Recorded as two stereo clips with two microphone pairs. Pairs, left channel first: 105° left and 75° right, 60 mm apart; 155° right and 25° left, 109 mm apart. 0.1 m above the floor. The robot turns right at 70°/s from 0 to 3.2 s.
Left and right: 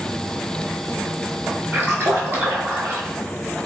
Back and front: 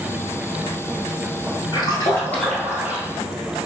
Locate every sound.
1.7 s a splash: 125° right, 1.1 m; by 3.1 s 30° right, 1.1 m